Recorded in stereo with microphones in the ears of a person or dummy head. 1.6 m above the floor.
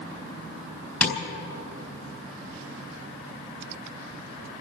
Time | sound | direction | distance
1.0 | tapping | 5° left (ahead or behind) | 4.5 m